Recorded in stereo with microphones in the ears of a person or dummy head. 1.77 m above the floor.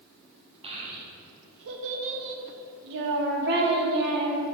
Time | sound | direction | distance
0.6 | a child speaking | 30° right (ahead or behind) | 0.8 m